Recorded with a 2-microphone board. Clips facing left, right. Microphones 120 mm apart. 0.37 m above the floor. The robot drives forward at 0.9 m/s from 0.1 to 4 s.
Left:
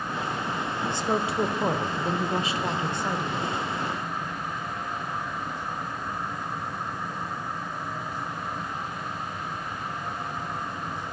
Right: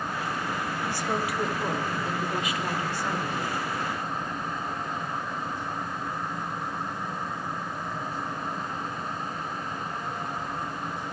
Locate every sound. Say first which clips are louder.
0.9 s a woman speaking: left 3 dB; 20° left (ahead or behind), 1.3 m; by 3.6 s 15° left (ahead or behind), 1.7 m